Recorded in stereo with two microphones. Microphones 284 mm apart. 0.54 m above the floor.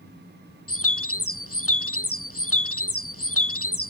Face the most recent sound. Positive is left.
turn(degrees=50)  # may be behind; listen again after turning